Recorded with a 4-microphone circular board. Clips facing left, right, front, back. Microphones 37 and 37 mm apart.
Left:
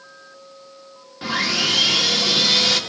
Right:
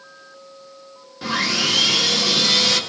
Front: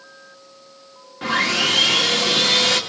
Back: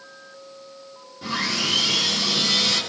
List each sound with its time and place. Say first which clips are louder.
1.2 s sawing: even, front 6 dB; 15° left, 1.6 m